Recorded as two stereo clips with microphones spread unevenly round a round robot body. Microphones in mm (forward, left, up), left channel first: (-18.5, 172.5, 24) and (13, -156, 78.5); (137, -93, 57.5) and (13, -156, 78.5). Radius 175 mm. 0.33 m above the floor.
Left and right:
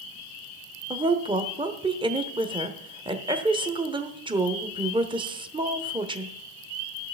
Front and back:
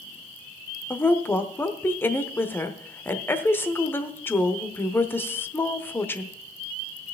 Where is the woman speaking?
5° right, 1.0 m.